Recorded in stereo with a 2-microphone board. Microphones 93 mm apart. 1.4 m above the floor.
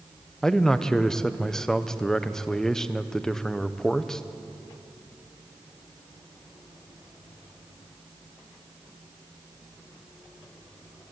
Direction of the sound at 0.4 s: 5° left (ahead or behind).